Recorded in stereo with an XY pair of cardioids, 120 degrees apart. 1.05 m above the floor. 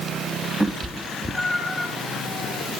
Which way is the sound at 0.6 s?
10° right.